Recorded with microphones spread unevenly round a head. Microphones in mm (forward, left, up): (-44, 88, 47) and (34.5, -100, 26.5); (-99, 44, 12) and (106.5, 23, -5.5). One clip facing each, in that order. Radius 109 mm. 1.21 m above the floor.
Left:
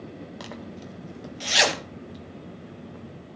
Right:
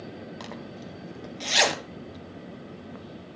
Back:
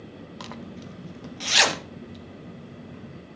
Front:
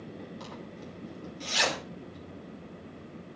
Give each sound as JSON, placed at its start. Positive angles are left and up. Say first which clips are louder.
{"t": 0.4, "sound": "a zipper", "louder": "left 1 dB, back 4 dB", "azimuth_deg": -160, "distance_m": 1.7}